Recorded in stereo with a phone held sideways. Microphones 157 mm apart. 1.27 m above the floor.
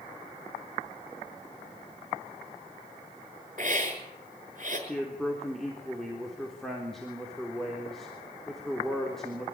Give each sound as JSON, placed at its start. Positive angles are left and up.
{"t": 3.6, "sound": "a hiss", "side_deg": -55, "distance_m": 6.0}
{"t": 4.9, "sound": "a man speaking", "side_deg": 5, "distance_m": 3.5}